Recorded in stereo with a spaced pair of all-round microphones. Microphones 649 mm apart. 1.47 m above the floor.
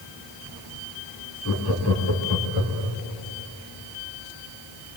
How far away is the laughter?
About 3 m.